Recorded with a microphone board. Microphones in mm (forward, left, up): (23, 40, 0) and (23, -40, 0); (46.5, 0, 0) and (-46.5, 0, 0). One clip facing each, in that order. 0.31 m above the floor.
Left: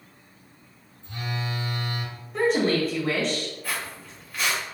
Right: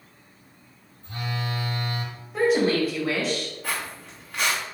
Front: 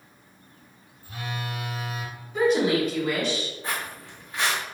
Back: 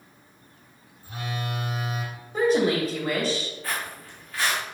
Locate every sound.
1.0 s a phone buzzing: 125° right, 0.8 m
2.3 s a woman speaking: 175° right, 1.5 m
3.6 s footsteps: 65° right, 1.4 m